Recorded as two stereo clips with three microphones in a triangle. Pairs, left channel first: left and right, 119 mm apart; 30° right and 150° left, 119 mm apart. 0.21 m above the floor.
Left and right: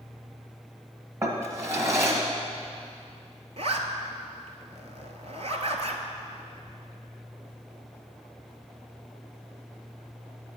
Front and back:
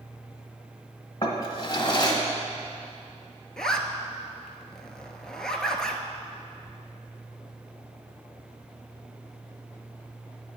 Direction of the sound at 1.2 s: 45° right.